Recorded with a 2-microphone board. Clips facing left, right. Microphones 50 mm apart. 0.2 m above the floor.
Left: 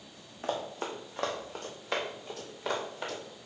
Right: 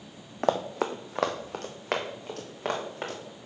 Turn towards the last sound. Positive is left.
turn(degrees=-55)  # may be behind; listen again after turning